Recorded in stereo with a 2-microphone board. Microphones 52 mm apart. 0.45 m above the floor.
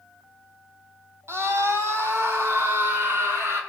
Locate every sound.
1.3 s a scream: 55° right (ahead or behind), 3 m; by 3.6 s 45° right (ahead or behind), 6 m